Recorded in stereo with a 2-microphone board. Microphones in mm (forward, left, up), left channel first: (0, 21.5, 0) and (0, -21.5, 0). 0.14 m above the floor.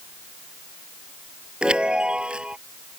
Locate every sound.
1.6 s a chime: 25° right (ahead or behind)